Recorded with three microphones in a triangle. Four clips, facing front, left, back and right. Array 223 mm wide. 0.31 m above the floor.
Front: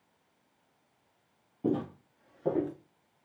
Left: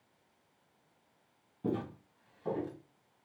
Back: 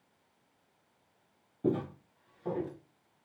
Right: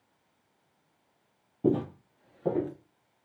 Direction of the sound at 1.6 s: 100° right.